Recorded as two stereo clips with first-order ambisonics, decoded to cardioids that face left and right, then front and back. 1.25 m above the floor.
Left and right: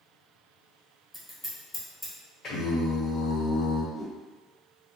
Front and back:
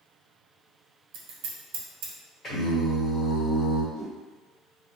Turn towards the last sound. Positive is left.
turn(degrees=130)